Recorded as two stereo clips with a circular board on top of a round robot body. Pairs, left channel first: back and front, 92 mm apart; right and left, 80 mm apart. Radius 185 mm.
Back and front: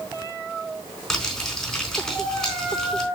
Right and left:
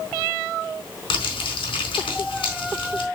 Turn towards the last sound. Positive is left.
turn(degrees=-95)